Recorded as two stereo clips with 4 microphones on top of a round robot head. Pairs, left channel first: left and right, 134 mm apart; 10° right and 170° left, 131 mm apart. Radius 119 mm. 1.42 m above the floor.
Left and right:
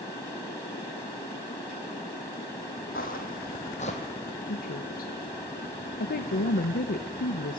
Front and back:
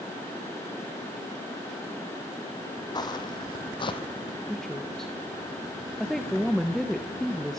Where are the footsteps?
45° left, 2.5 m; by 4.0 s 35° left, 2 m.